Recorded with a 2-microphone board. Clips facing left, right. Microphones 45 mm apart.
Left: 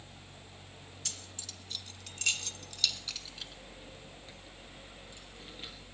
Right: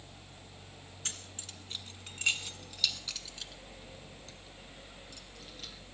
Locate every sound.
1.1 s keys jangling: 35° right (ahead or behind), 1.5 m; by 5.7 s 20° left (ahead or behind), 3 m